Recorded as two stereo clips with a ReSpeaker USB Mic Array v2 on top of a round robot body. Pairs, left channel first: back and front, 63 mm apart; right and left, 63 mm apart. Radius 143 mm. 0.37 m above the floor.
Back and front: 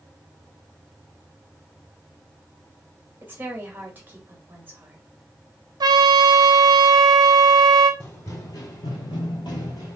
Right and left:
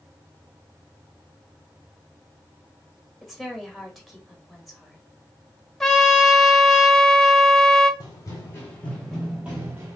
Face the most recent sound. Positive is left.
turn(degrees=145)